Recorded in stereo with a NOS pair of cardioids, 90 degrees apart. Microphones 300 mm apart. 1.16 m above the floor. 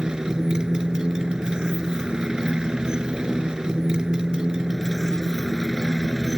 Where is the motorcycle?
Straight ahead.